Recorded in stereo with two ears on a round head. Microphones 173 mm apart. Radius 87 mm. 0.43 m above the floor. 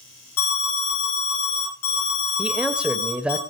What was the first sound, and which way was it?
An alarm, 85° left.